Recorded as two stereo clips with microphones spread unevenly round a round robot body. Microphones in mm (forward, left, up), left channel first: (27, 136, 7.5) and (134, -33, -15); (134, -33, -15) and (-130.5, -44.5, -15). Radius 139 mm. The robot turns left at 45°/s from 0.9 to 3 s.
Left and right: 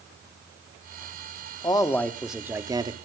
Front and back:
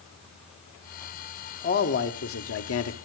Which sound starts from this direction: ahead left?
A man speaking, at 1.6 s.